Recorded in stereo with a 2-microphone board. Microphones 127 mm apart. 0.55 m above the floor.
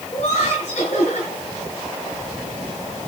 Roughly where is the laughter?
Left.